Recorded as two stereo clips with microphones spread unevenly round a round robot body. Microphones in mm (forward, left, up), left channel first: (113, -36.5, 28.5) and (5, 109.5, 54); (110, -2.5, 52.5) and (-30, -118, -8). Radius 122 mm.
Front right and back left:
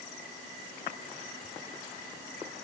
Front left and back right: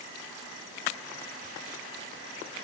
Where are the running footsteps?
I don't hear running footsteps.